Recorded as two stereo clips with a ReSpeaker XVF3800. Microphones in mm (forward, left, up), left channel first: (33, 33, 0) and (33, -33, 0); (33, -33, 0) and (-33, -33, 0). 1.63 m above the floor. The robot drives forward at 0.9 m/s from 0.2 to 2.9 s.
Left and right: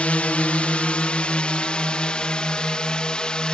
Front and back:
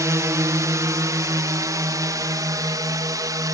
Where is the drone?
155° left; by 3.5 s 165° left.